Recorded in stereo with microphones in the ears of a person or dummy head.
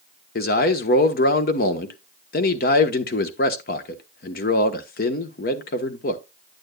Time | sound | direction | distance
0.3 | a man speaking | 50° left (ahead or behind) | 1.1 m